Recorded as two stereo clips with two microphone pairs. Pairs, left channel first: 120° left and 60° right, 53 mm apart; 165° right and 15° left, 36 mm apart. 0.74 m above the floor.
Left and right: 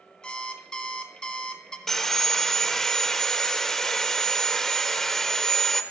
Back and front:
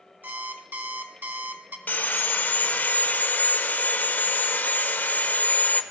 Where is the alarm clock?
50° left, 0.7 m.